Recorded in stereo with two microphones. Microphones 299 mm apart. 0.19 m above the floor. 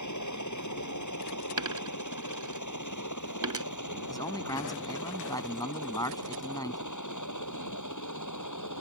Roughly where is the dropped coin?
Right.